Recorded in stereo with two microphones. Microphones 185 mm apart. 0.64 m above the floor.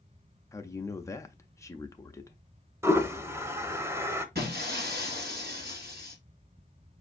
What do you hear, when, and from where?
0.5 s a man speaking: 15° left (ahead or behind), 0.5 m
2.8 s a toilet flushing: 15° right (ahead or behind), 0.5 m
4.3 s breaking glass: 60° right (ahead or behind), 1.7 m